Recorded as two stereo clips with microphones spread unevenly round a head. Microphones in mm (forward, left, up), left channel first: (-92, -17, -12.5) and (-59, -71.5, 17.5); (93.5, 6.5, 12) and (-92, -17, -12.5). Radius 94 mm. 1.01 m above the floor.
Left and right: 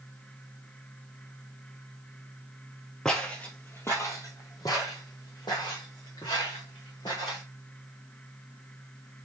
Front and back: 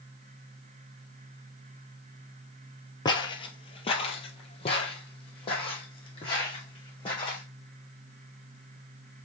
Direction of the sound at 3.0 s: 5° right.